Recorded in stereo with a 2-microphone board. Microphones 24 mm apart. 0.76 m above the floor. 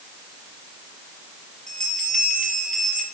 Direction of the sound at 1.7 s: 25° left (ahead or behind).